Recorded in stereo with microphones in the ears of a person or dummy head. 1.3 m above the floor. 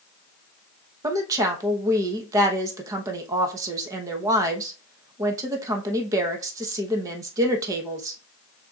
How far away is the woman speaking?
About 1.0 m.